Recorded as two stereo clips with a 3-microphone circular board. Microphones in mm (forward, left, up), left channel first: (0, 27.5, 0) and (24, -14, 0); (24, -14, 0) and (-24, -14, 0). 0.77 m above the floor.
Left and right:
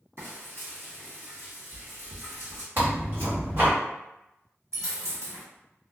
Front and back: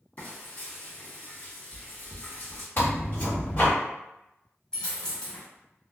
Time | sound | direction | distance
0.2 | frying | 45° right | 1.4 m
2.8 | tearing paper | 35° right | 1.5 m
4.7 | a dropped coin | 70° right | 1.0 m